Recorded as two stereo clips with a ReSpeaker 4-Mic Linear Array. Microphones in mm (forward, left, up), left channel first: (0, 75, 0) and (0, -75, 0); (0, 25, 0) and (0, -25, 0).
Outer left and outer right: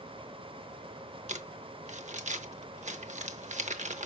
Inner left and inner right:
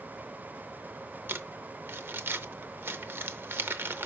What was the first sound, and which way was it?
Crumpling, 50° right (ahead or behind).